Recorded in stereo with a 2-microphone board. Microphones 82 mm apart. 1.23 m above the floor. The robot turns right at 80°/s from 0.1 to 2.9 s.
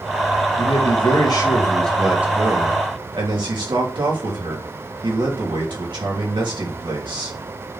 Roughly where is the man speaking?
Left.